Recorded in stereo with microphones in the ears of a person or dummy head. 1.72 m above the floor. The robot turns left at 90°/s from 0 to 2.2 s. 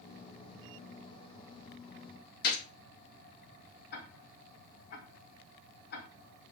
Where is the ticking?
60° left (ahead or behind), 1.3 m.